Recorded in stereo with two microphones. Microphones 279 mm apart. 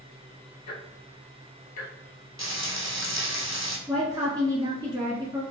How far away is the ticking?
About 0.9 m.